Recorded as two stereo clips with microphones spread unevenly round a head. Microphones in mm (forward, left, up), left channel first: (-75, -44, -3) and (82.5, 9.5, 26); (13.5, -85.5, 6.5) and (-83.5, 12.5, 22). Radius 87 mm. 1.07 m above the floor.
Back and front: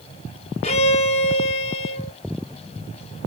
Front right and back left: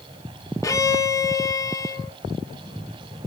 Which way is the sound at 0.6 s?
110° right.